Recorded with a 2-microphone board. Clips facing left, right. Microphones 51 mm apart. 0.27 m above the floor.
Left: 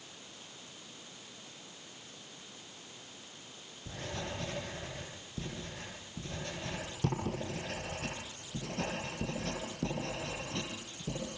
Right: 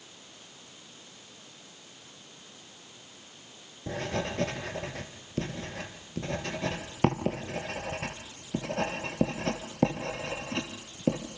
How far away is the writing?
About 4 m.